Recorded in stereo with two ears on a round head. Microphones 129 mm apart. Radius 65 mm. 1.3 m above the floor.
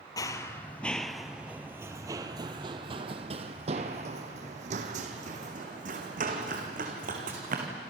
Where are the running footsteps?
25° left (ahead or behind), 1.4 m; by 7.7 s 60° right (ahead or behind), 4.5 m.